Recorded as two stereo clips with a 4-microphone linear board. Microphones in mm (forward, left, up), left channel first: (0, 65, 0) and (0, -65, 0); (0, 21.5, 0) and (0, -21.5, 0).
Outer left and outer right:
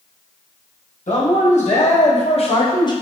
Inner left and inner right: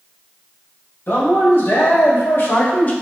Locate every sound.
1.1 s a man speaking: 70° left (ahead or behind), 1.6 m; by 2.9 s 35° left (ahead or behind), 0.7 m